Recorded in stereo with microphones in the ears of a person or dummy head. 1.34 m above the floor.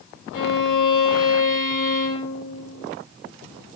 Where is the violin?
65° left (ahead or behind), 4.5 m.